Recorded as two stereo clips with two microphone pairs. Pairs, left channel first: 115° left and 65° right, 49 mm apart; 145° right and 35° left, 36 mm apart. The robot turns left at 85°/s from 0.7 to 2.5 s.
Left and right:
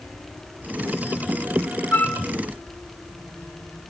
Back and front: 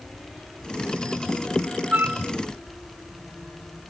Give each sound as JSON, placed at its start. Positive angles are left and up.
{"t": 1.9, "sound": "a flute", "azimuth_deg": 70, "distance_m": 1.9}